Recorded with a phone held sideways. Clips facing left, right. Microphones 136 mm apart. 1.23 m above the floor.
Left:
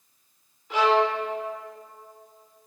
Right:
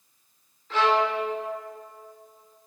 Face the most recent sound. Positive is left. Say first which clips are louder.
# left 1 dB
turn(degrees=15)  # may be behind; listen again after turning